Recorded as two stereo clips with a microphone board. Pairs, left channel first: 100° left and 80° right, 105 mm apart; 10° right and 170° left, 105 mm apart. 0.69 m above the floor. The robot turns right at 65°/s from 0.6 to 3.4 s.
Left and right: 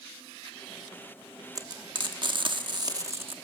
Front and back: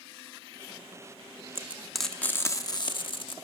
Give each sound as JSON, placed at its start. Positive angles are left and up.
{"t": 1.6, "sound": "frying", "azimuth_deg": -125, "distance_m": 0.9}